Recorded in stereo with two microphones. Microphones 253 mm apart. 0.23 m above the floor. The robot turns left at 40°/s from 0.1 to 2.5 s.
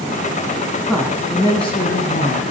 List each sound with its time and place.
0.8 s a woman speaking: 175° right, 1.8 m; by 2.4 s 120° left, 1.8 m